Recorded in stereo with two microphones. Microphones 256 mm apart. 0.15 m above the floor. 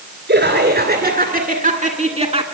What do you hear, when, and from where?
0.3 s laughter: 45° right (ahead or behind), 2.5 m; by 2.4 s 25° right (ahead or behind), 1.9 m